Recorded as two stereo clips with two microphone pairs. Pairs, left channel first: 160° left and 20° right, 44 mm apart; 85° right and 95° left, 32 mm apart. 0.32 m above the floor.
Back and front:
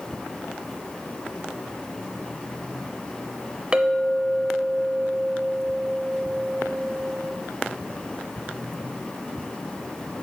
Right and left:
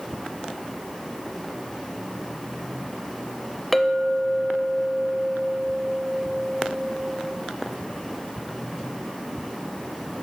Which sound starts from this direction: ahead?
A clink, at 3.7 s.